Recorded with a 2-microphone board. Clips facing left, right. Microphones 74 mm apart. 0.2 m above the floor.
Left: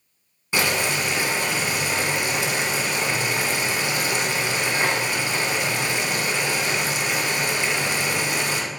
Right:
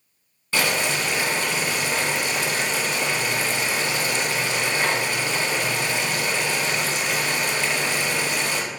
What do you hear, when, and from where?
0.5 s boiling: 15° left (ahead or behind), 0.8 m